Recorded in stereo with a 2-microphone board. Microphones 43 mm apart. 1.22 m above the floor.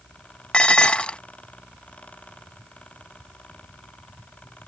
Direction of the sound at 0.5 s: 25° left (ahead or behind).